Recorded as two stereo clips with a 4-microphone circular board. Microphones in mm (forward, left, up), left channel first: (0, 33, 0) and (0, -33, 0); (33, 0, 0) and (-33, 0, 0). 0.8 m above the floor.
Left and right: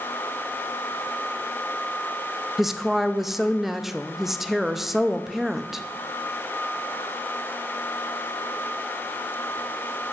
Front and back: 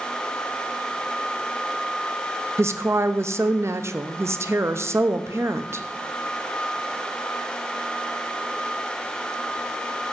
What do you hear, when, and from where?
2.6 s a woman speaking: 175° right, 0.5 m